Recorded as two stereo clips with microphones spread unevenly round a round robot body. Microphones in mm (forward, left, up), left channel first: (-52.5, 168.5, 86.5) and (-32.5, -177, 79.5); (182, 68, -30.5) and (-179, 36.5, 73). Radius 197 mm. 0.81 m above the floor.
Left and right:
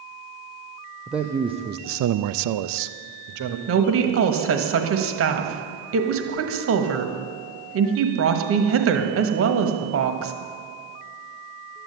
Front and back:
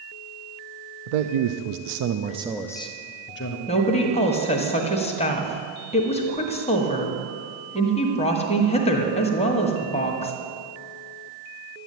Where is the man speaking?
175° right, 0.9 m; by 3.6 s 45° right, 1.1 m.